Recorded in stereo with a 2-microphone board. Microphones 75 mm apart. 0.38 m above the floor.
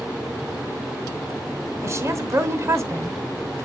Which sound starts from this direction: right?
A woman speaking, at 1.8 s.